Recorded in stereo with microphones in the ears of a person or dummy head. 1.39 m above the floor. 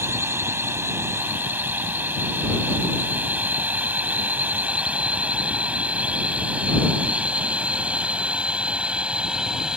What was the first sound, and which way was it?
A drone, 10° right (ahead or behind).